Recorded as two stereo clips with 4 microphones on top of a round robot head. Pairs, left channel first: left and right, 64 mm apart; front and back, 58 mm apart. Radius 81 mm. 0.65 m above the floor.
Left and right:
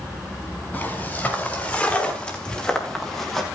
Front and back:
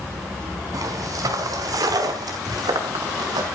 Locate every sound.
0.7 s footsteps: 155° left, 7.5 m; by 3.5 s 175° left, 5 m